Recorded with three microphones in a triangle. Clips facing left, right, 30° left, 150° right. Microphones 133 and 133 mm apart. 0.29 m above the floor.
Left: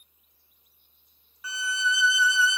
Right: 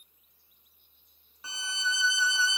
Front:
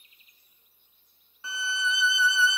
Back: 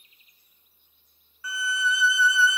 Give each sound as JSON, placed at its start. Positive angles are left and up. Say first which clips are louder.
{"t": 1.4, "sound": "a violin", "louder": "left 6 dB, back 3 dB", "azimuth_deg": -35, "distance_m": 0.6}